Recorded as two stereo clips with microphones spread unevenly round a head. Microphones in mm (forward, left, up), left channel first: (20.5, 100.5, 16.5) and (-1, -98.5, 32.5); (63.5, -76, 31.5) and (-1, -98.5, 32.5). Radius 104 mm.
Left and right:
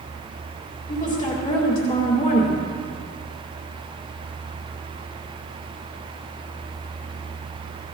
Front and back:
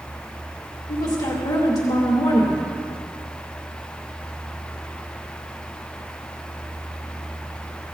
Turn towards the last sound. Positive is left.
turn(degrees=30)